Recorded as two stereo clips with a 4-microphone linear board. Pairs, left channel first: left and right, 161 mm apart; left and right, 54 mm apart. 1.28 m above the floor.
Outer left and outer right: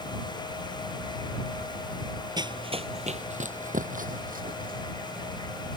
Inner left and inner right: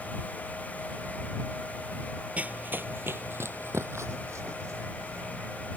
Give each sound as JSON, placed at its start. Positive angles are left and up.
{"t": 2.4, "sound": "running footsteps", "side_deg": -25}